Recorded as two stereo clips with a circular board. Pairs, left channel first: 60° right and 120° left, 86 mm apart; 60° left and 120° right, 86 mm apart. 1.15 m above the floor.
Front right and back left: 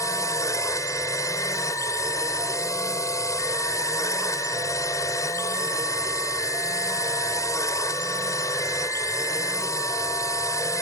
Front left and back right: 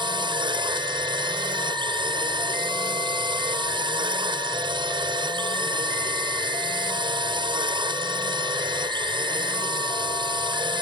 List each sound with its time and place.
0.0 s a drone: 110° right